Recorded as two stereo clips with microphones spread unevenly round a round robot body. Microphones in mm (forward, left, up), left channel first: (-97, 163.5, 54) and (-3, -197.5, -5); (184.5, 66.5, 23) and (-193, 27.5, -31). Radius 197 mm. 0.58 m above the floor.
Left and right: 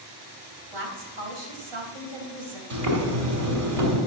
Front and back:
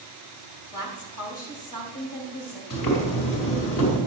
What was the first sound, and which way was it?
A woman speaking, 65° right.